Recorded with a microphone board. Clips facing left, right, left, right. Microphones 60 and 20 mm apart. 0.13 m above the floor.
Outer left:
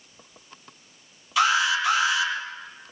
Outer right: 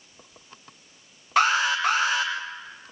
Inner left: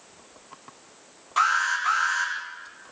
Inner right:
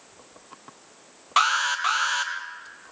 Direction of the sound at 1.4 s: 50° right (ahead or behind).